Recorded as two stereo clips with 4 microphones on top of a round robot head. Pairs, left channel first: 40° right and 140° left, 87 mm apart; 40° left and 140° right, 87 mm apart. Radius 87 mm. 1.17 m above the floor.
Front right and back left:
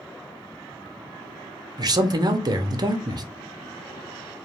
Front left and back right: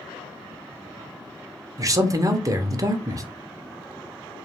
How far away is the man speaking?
About 0.6 m.